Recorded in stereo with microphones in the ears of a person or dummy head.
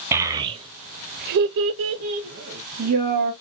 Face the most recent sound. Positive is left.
turn(degrees=-50)  # may be behind; listen again after turning